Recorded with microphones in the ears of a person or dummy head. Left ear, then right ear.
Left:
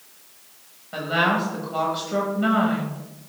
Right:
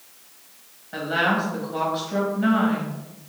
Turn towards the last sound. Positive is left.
turn(degrees=10)  # may be behind; listen again after turning